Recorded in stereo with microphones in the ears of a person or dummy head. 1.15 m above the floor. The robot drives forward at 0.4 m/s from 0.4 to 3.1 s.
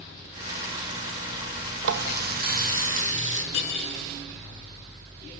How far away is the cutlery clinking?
About 7.5 m.